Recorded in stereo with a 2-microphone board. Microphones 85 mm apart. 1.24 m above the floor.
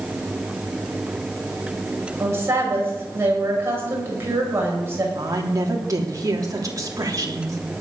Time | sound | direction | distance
2.2 | a woman speaking | 30° right (ahead or behind) | 7 m
5.2 | a woman speaking | 40° right (ahead or behind) | 3 m